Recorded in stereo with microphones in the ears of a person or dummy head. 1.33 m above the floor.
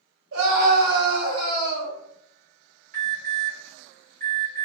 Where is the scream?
65° right (ahead or behind), 1.2 m; by 2.0 s 60° right (ahead or behind), 1.6 m.